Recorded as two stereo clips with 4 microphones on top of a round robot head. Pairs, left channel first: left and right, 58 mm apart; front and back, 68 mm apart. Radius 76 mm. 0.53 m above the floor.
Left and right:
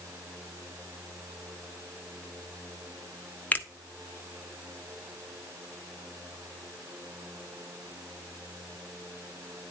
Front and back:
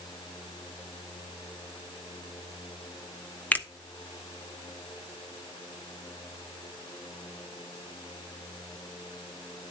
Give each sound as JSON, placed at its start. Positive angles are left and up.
{"t": 3.5, "sound": "a finger snap", "azimuth_deg": 50, "distance_m": 1.3}